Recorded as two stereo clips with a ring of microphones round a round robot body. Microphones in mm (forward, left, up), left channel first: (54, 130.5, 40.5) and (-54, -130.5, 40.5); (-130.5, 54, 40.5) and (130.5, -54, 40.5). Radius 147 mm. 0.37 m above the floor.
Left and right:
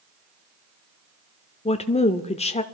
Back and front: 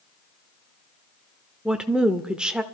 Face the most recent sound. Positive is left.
turn(degrees=60)